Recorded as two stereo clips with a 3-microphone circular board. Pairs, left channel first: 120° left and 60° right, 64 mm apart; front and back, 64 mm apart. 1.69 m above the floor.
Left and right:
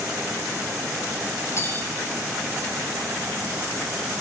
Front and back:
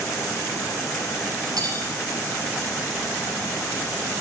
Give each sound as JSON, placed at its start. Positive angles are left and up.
{"t": 1.6, "sound": "cutlery clinking", "azimuth_deg": 165, "distance_m": 6.0}